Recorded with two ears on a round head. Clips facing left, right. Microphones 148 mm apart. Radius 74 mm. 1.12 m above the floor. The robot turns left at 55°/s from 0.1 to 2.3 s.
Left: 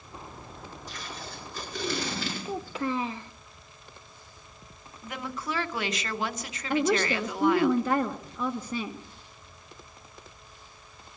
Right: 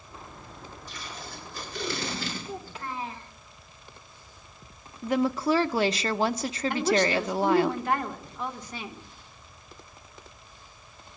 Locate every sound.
0.9 s tape being pulled: 120° left, 8.5 m; by 2.8 s 40° left, 8.5 m
2.5 s a child speaking: 60° left (ahead or behind), 0.6 m
5.0 s a woman speaking: 30° right (ahead or behind), 0.7 m
6.7 s a woman speaking: 80° left, 1.6 m